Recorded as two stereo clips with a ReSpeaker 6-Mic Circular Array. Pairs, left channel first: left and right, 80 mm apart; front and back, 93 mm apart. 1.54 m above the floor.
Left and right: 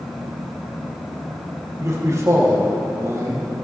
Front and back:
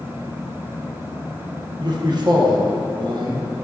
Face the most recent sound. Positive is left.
turn(degrees=-140)